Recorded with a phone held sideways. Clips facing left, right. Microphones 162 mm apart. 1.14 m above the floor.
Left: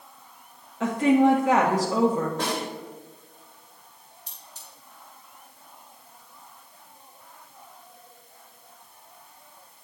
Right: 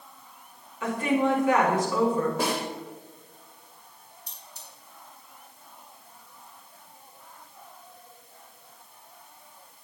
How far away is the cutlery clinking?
About 3 m.